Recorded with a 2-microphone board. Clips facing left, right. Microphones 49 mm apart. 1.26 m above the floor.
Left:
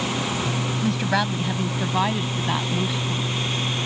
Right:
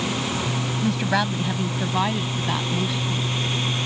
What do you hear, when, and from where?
0.8 s a woman speaking: centre (ahead or behind); by 3.4 s 10° left (ahead or behind)